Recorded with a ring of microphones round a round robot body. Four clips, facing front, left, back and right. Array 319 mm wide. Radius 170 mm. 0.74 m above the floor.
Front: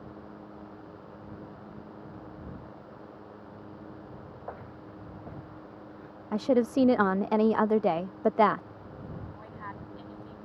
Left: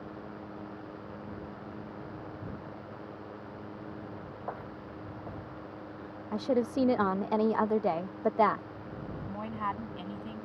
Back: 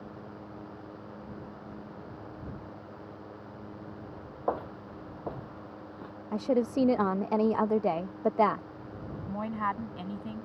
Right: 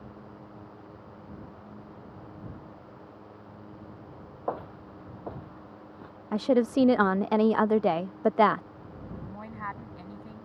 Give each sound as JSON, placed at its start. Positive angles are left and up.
{"t": 4.5, "sound": "footsteps", "azimuth_deg": -150}
{"t": 6.3, "sound": "a woman speaking", "azimuth_deg": -55}
{"t": 9.3, "sound": "a woman speaking", "azimuth_deg": 170}